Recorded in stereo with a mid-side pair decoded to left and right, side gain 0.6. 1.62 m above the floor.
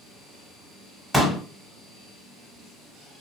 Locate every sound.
1.1 s a pop: 5° right, 1.4 m